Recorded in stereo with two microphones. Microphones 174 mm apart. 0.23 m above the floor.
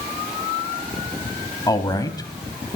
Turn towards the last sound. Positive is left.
turn(degrees=25)  # may be behind; listen again after turning